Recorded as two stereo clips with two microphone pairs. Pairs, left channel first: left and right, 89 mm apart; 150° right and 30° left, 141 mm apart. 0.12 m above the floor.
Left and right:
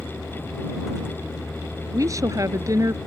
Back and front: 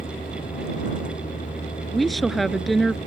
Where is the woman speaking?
60° right.